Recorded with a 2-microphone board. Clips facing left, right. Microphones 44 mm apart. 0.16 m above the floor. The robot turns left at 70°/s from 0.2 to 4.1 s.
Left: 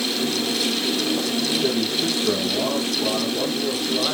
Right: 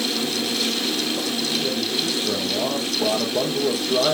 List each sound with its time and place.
1.6 s a man speaking: 70° left, 3 m; by 4.2 s 105° right, 3 m